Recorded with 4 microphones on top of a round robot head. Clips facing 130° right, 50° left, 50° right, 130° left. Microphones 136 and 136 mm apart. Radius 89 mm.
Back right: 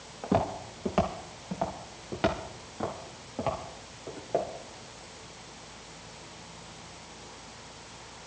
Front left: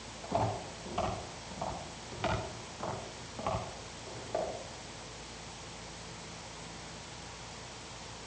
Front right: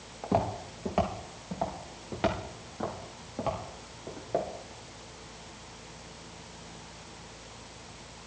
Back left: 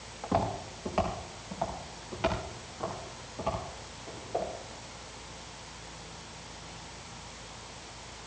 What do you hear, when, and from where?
0.2 s footsteps: 115° right, 3.5 m; by 4.5 s 80° right, 6 m